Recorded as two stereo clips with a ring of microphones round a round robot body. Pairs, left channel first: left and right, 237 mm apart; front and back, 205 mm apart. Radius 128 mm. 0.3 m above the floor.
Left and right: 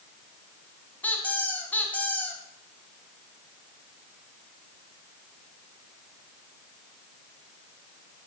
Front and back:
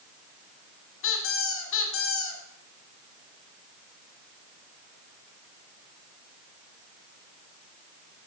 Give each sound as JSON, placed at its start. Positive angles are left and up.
{"t": 1.0, "sound": "a squeak", "azimuth_deg": 5, "distance_m": 1.4}